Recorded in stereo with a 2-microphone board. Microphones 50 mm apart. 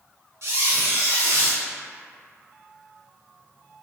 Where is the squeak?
65° right (ahead or behind), 0.6 m.